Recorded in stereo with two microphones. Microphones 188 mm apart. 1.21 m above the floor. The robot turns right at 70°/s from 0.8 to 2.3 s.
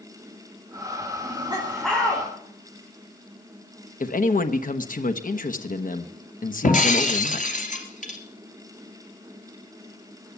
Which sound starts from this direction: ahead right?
Laughter, at 1.2 s.